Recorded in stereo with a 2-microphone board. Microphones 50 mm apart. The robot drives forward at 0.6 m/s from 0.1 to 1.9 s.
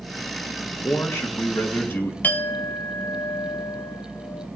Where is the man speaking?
55° left (ahead or behind), 1.9 m; by 2.1 s 40° left (ahead or behind), 2.5 m.